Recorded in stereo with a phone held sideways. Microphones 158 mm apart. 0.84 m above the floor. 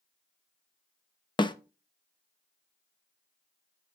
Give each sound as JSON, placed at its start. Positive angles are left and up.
{"t": 1.4, "sound": "a snare drum", "side_deg": 30, "distance_m": 0.7}